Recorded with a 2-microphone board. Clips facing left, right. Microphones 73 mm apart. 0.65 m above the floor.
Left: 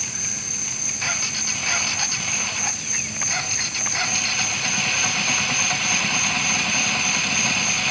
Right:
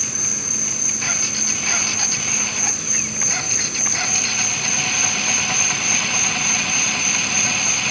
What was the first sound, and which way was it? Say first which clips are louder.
An insect: right 4 dB; 60° right (ahead or behind).